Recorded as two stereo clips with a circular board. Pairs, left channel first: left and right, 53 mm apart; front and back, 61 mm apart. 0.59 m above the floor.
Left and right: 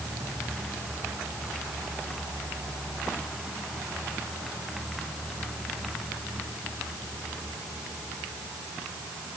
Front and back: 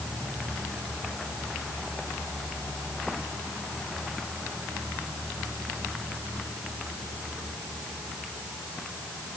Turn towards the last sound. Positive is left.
No sound to turn to.